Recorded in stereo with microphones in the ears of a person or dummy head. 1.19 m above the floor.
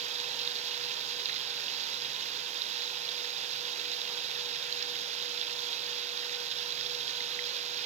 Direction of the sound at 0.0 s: 35° right (ahead or behind).